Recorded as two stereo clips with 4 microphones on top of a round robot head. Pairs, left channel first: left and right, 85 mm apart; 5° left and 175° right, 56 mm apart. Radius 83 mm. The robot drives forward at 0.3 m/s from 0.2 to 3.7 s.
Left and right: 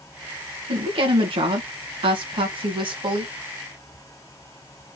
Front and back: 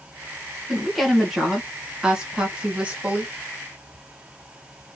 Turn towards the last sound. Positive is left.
turn(degrees=-115)